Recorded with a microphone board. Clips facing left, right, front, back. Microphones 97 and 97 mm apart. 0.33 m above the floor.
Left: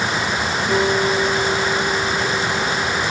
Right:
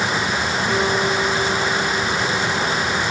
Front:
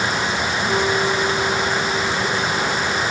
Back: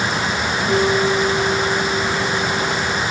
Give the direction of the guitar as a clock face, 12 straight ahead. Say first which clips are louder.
Left 3 dB, back 4 dB; 5 o'clock.